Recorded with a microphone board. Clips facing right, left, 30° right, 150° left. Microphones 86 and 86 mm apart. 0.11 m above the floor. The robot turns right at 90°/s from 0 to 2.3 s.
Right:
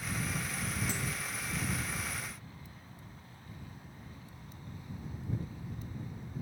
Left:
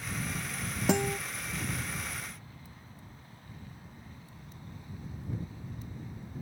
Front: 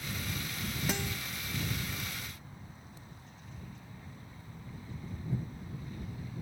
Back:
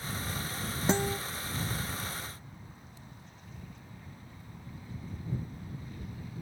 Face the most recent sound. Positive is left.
turn(degrees=-145)